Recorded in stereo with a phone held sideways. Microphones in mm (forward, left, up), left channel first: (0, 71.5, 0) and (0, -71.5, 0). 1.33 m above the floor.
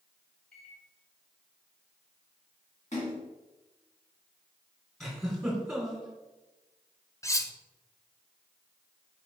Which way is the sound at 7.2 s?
20° left (ahead or behind).